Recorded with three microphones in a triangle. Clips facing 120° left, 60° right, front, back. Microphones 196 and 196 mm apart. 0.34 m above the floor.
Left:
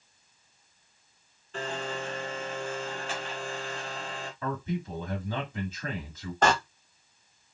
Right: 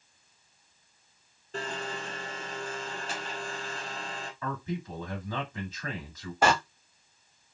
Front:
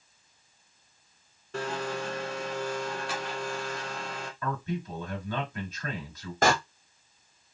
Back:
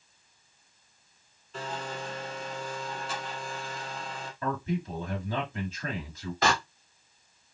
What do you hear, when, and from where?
1.5 s a blender: 10° right, 0.7 m
4.4 s a man speaking: 165° left, 1.4 m
6.4 s a door slam: 20° left, 0.8 m